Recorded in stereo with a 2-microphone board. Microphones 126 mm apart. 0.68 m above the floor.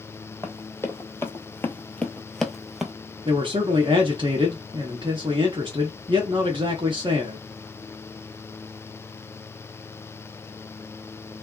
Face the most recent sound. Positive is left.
turn(degrees=-40)  # may be behind; listen again after turning